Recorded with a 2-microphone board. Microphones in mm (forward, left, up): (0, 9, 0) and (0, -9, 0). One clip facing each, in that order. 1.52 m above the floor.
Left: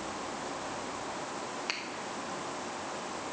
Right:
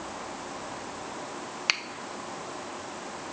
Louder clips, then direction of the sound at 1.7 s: Right 11 dB; 55° right (ahead or behind).